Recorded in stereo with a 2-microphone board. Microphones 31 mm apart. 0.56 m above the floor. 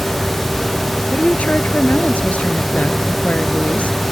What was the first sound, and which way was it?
A woman speaking, 50° left (ahead or behind).